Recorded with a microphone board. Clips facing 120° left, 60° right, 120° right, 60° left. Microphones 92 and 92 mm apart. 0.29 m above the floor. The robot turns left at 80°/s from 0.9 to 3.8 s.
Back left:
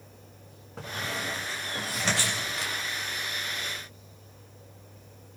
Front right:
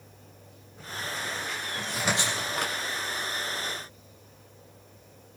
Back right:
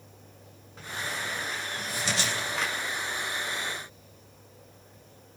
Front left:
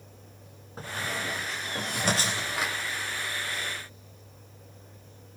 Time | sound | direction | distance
0.8 | a squeak | 115° left | 8.5 m